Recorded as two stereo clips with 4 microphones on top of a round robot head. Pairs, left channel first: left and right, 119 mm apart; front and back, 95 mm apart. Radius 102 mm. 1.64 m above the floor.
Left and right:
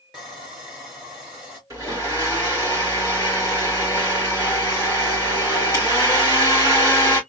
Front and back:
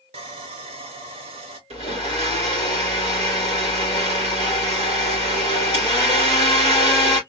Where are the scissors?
No scissors in this recording.